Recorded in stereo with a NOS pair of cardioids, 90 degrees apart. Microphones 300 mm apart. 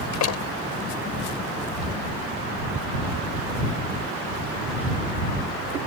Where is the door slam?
65° left.